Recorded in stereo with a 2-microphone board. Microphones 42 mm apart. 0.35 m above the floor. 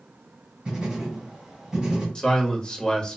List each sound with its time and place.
0.7 s writing: 10° right (ahead or behind), 1.9 m
2.1 s a man speaking: 20° left (ahead or behind), 0.8 m